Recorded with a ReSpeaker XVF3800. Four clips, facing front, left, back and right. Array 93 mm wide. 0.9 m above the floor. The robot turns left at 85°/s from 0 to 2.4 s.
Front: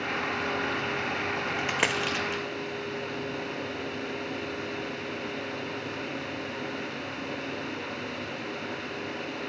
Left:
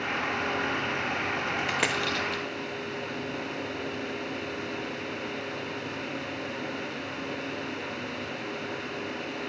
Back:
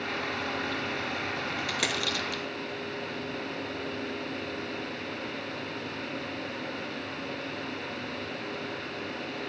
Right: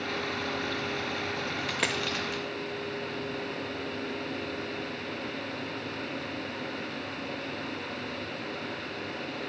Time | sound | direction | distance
1.6 | a dropped coin | 35° left | 0.7 m